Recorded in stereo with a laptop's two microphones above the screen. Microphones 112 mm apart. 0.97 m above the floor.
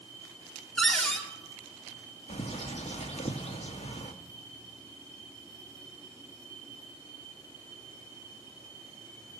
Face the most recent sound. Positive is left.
turn(degrees=70)  # may be behind; listen again after turning